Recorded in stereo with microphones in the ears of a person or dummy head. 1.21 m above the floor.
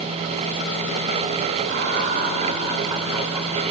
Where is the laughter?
55° right (ahead or behind), 1.8 m; by 3.6 s centre (ahead or behind), 1.2 m.